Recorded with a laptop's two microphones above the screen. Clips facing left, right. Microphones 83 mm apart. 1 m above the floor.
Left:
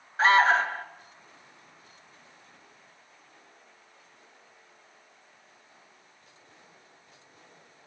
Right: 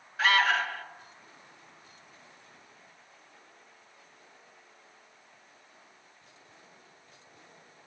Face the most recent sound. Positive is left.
turn(degrees=35)  # may be behind; listen again after turning